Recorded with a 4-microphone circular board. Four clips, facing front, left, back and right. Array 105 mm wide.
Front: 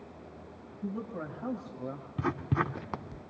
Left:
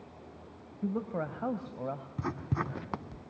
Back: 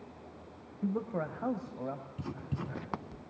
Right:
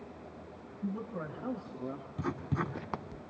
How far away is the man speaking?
About 2.5 m.